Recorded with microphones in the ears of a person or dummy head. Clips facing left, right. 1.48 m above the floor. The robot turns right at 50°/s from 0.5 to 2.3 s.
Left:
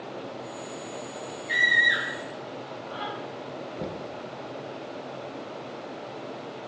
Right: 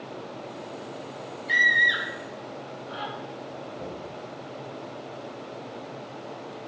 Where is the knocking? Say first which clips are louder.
Left 4 dB; 45° left (ahead or behind), 0.9 m.